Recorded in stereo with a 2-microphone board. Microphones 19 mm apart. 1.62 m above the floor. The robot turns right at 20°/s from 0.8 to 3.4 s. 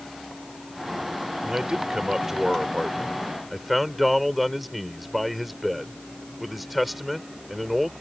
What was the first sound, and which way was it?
A man speaking, 40° right.